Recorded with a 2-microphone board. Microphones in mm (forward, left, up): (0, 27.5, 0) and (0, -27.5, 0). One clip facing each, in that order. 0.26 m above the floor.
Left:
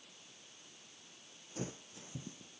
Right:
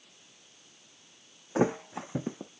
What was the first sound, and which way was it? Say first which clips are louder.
A thud: right 18 dB; 75° right (ahead or behind).